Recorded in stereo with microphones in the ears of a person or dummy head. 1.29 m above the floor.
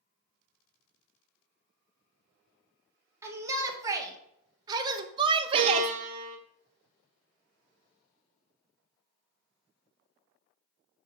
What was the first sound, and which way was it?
A shout, 20° right (ahead or behind).